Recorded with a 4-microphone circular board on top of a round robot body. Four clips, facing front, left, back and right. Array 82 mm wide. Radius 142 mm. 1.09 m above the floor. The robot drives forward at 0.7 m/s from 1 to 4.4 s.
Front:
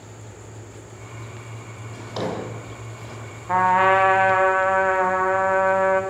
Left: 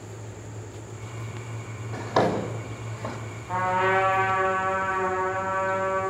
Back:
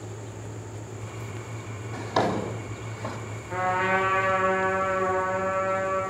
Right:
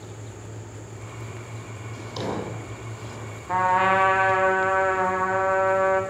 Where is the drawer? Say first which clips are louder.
Left 7 dB, back 3 dB; 100° left, 2 m; by 3.2 s 120° left, 2.5 m.